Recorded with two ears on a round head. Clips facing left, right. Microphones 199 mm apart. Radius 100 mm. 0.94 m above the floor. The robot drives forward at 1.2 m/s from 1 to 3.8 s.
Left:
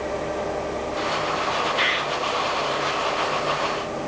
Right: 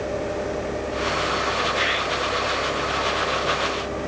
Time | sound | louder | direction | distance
1.8 | a bird | right 1 dB | 50° left (ahead or behind) | 6.5 m